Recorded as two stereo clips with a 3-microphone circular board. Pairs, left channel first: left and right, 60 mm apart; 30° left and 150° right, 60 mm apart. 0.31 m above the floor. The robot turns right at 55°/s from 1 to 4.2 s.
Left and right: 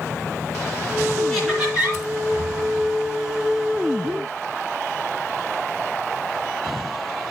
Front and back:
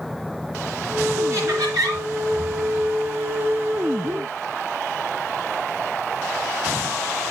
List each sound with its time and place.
1.3 s laughter: 170° left, 4.5 m; by 2.0 s 150° right, 4.5 m